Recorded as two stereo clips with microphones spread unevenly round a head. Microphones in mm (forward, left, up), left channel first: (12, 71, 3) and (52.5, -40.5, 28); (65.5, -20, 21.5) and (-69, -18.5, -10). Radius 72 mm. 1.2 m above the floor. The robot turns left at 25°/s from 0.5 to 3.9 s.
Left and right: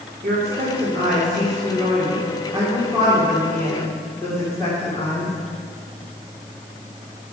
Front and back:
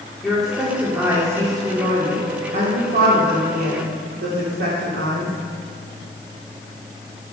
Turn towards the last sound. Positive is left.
turn(degrees=-175)